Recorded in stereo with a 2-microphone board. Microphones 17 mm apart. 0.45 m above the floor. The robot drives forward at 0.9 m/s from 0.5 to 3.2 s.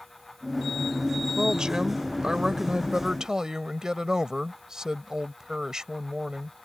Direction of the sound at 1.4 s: 55° right (ahead or behind).